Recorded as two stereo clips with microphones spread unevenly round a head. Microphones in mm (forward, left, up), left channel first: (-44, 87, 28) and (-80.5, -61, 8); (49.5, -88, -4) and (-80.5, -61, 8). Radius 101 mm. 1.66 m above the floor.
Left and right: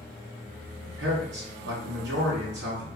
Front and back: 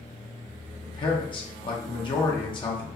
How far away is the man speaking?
About 0.9 m.